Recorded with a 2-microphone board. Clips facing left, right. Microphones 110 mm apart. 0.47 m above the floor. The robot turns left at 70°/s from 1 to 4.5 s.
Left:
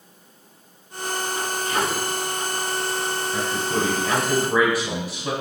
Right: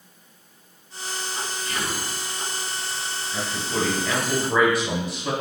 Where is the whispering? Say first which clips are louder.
Left 7 dB; 20° left (ahead or behind), 1.3 m; by 2.1 s 25° left (ahead or behind), 1.3 m.